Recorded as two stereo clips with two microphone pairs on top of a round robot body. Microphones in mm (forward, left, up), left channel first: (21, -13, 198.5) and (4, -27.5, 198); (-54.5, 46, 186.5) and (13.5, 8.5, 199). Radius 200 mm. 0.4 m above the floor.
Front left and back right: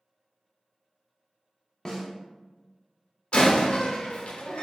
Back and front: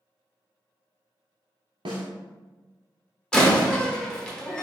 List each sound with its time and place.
1.9 s a snare drum: 30° right, 0.6 m
3.3 s a door slam: 75° left, 1.1 m